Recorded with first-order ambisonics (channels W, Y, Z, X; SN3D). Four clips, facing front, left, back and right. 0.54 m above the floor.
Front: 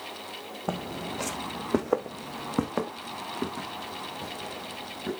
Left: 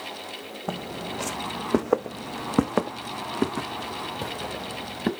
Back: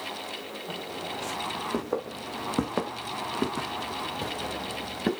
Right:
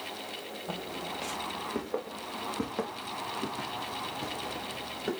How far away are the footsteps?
About 1.3 m.